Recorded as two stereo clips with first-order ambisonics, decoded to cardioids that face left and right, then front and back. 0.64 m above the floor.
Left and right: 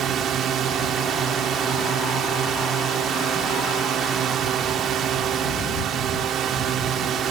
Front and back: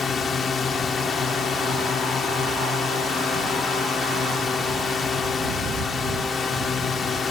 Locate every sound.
0.0 s a drone: 50° right